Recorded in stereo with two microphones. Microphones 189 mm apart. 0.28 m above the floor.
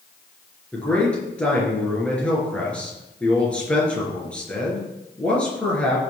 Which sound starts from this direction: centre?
A man speaking, at 0.7 s.